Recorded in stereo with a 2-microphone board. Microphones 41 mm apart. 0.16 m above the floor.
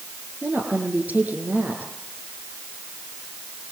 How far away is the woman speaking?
About 6.5 m.